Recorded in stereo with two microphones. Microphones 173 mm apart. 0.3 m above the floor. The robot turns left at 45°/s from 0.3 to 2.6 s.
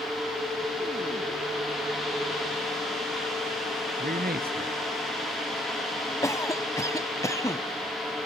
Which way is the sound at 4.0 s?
60° right (ahead or behind).